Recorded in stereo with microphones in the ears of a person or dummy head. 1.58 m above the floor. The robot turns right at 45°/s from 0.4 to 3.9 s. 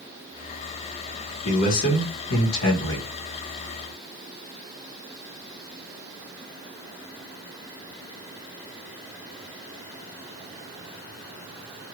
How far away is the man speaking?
About 1.4 m.